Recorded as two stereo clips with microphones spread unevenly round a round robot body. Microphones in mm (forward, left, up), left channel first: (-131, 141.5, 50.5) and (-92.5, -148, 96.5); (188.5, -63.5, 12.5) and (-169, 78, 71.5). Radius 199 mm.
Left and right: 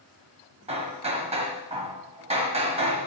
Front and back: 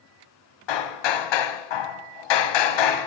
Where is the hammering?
10° right, 1.2 m.